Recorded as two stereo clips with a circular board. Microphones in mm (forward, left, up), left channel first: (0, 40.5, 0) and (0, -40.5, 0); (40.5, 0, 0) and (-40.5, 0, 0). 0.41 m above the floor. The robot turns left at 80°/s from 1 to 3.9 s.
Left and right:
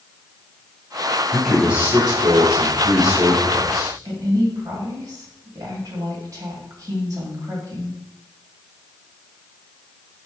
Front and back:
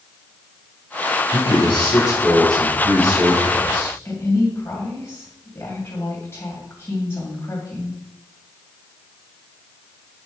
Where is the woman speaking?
55° right, 2.5 m.